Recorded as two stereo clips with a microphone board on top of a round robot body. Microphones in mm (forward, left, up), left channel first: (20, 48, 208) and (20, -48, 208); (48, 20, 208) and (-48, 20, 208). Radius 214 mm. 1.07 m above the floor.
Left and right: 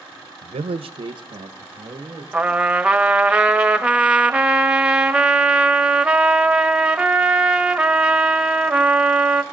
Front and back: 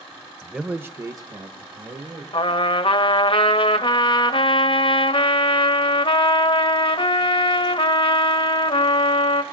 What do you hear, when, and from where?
0.4 s a man speaking: 85° right, 0.7 m; by 2.2 s 145° right, 1.9 m
2.3 s a trumpet: 10° right, 0.9 m